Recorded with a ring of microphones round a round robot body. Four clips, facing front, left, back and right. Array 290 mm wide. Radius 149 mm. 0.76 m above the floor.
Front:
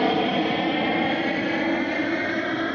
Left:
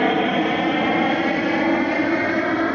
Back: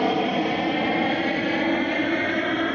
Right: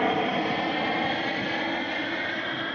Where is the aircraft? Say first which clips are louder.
Left 6 dB, even; 80° left; by 2.8 s 95° left.